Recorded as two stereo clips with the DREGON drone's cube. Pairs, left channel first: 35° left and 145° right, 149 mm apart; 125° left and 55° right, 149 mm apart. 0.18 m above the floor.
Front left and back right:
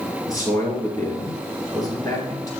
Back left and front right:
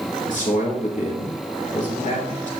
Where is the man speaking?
100° left, 3.5 m.